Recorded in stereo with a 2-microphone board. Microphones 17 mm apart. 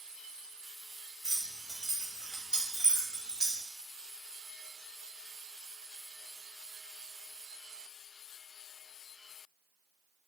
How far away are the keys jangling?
About 1.2 m.